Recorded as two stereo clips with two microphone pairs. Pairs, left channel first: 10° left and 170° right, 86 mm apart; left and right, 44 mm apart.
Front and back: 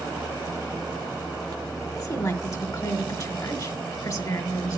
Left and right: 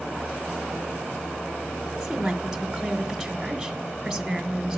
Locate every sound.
1.9 s a woman speaking: 15° right, 2 m